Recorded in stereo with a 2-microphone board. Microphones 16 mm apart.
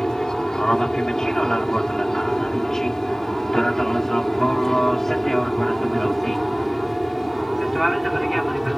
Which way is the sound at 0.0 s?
45° left (ahead or behind).